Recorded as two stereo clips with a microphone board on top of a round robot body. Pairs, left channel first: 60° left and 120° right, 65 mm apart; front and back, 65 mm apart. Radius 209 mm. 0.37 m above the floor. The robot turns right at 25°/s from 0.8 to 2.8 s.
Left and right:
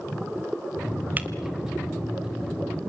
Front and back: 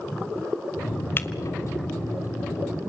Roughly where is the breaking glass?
Ahead right.